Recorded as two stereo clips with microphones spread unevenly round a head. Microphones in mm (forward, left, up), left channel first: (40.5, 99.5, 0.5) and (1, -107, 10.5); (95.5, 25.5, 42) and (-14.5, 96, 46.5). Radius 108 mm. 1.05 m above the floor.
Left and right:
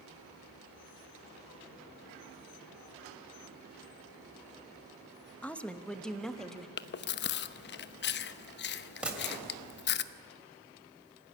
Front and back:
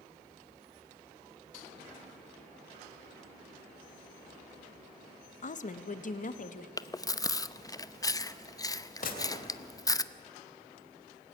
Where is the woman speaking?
5° right, 1.1 m; by 6.7 s 10° right, 1.9 m.